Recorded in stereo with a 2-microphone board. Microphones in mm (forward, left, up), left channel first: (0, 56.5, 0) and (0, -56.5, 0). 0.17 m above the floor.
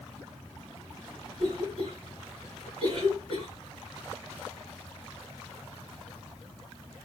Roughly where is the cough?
Right.